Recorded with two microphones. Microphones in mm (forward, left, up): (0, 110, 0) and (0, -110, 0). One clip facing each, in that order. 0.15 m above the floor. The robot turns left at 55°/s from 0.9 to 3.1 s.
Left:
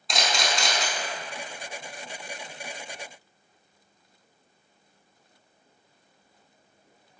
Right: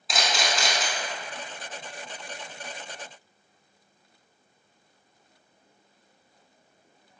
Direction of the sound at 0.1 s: Centre (ahead or behind).